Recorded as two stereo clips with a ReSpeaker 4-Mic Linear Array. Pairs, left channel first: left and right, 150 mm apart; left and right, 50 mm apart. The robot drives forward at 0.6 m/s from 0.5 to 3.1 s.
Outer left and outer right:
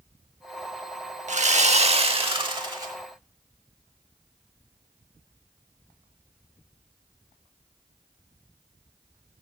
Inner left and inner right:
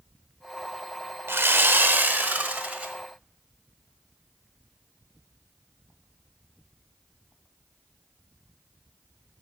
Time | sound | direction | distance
1.3 | sawing | 55° right (ahead or behind) | 0.7 m